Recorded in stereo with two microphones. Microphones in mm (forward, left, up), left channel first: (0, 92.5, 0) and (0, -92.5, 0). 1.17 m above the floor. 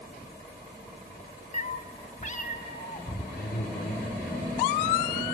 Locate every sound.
1.5 s a cat meowing: 40° left (ahead or behind), 0.6 m
3.3 s a man speaking: 70° left (ahead or behind), 3 m